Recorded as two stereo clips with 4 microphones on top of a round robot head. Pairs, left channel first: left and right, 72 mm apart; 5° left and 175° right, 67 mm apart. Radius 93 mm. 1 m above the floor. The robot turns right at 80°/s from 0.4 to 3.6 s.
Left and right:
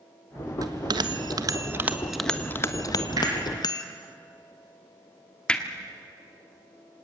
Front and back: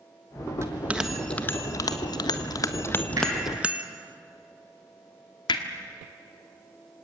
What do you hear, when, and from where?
0.6 s a bell: 125° right, 1.3 m; by 3.8 s 115° left, 1.3 m
3.2 s hammering: 130° right, 7.5 m; by 3.3 s 115° right, 7.5 m
5.5 s hammering: 15° left, 1.4 m